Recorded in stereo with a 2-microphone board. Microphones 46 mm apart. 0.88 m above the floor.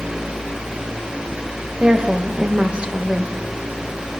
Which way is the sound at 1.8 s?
25° right (ahead or behind).